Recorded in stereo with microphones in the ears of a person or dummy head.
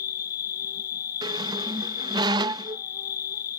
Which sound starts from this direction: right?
A squeak, at 1.2 s.